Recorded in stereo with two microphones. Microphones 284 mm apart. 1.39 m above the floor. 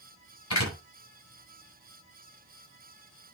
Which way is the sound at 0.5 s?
70° left (ahead or behind).